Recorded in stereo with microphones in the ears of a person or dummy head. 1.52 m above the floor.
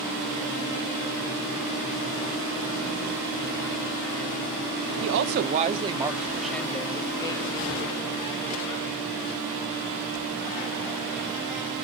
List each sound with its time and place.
5.0 s a woman speaking: 65° right (ahead or behind), 0.7 m; by 8.9 s 35° left (ahead or behind), 1.9 m